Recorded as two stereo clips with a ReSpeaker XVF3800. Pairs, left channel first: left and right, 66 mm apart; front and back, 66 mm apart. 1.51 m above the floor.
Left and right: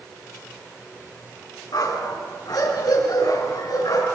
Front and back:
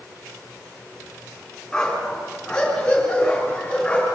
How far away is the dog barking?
About 7 m.